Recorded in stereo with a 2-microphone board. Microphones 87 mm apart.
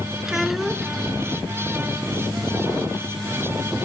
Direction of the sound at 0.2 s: 5° right (ahead or behind).